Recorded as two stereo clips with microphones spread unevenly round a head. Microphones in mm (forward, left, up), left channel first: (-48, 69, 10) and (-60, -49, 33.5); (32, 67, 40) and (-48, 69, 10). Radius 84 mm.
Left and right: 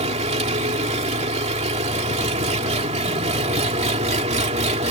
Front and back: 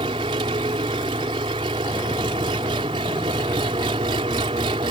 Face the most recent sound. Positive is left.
turn(degrees=-125)